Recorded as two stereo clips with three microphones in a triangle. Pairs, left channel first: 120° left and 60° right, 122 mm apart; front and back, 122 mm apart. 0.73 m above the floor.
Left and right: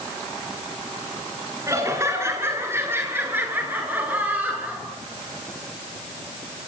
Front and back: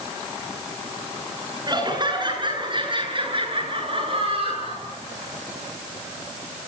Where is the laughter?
125° right, 8.5 m; by 4.8 s 140° right, 10.5 m.